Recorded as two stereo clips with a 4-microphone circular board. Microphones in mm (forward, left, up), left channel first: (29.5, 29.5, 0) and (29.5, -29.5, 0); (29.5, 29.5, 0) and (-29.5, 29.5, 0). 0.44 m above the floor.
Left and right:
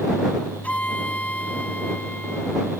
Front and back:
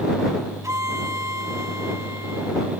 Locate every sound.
0.6 s a violin: 155° left